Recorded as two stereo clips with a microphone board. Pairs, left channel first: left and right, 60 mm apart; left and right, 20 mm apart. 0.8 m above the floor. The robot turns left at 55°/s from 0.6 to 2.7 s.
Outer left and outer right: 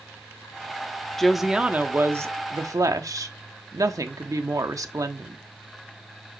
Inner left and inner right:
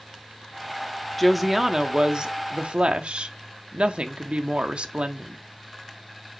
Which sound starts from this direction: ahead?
A woman speaking, at 1.2 s.